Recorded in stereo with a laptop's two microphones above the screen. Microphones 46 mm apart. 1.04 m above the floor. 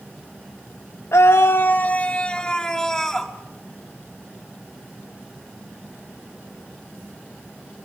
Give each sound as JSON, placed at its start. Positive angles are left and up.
{"t": 1.1, "sound": "a scream", "side_deg": 80, "distance_m": 0.7}